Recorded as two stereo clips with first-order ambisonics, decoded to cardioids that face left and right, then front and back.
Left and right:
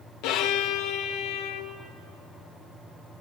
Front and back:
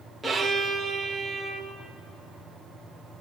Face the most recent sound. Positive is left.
turn(degrees=95)